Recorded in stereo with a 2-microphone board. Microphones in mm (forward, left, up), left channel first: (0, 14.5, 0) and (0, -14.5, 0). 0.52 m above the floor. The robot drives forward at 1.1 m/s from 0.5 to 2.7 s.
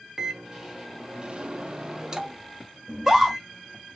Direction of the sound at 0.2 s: 15° right (ahead or behind).